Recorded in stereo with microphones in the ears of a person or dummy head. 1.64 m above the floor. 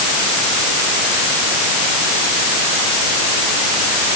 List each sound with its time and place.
Only background noise.